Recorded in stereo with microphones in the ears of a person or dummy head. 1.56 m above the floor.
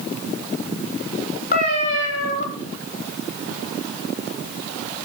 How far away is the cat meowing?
About 3 m.